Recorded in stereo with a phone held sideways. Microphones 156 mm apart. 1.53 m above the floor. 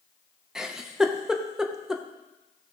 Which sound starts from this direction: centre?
A giggle, at 0.6 s.